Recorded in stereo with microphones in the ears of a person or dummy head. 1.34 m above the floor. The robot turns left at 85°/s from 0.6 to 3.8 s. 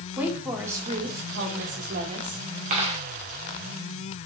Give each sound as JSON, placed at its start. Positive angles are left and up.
{"t": 0.2, "sound": "a woman speaking", "azimuth_deg": -10, "distance_m": 1.2}
{"t": 2.7, "sound": "a dropped coin", "side_deg": -40, "distance_m": 0.9}